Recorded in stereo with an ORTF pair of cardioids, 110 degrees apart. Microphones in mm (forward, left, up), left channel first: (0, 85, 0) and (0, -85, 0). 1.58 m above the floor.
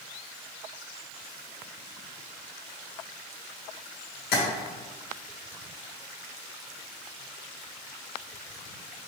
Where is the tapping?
70° left, 2 m.